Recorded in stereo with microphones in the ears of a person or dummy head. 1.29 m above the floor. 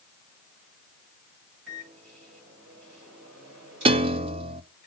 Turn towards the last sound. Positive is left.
turn(degrees=-25)  # may be behind; listen again after turning